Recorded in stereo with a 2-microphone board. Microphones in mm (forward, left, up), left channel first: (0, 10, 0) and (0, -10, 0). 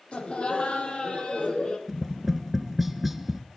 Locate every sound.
0.1 s laughter: 55° left (ahead or behind), 7 m; by 1.8 s 50° left (ahead or behind), 6.5 m
1.9 s tapping: 10° right (ahead or behind), 0.9 m